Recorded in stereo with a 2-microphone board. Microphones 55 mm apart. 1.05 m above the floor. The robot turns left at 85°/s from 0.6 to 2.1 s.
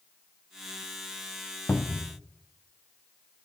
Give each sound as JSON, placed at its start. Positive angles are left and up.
{"t": 1.7, "sound": "a cupboard door", "azimuth_deg": 110, "distance_m": 0.5}